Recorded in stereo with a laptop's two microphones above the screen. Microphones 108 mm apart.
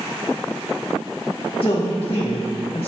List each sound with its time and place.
1.6 s a man speaking: 55° left (ahead or behind), 0.7 m